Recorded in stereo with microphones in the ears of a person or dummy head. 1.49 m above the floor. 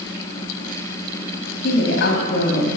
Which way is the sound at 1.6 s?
60° left (ahead or behind).